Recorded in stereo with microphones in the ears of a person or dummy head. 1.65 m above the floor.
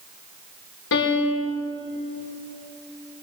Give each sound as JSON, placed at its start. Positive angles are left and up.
{"t": 0.9, "sound": "a piano", "side_deg": 65, "distance_m": 5.5}